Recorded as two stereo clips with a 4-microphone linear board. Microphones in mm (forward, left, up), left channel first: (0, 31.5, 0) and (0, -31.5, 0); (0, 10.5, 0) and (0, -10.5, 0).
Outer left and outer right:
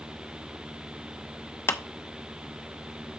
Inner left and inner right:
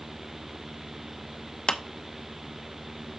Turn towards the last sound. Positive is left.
turn(degrees=40)  # may be behind; listen again after turning